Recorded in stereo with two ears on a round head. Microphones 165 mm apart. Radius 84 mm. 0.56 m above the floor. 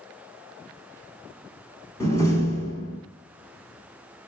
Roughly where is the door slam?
Centre.